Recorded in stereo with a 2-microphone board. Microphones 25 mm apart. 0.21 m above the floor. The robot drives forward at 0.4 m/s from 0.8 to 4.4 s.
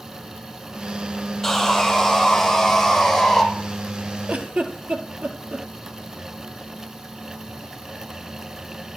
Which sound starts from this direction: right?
A giggle, at 4.3 s.